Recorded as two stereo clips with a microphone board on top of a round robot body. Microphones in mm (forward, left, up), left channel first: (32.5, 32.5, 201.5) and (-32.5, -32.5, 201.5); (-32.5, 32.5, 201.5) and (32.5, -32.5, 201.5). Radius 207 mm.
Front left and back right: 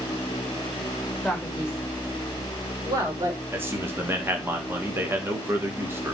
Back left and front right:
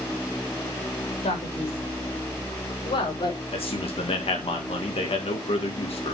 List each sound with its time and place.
1.2 s a man speaking: 135° left, 4.5 m; by 3.4 s 175° left, 4.5 m
3.5 s a man speaking: 155° left, 2 m